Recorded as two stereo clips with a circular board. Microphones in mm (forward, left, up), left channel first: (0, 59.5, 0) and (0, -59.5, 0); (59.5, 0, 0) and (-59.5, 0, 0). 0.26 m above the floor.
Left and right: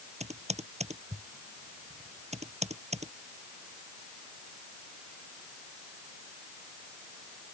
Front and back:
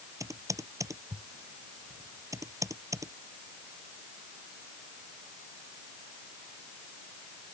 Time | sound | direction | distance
0.2 | typing on a keyboard | 115° right | ?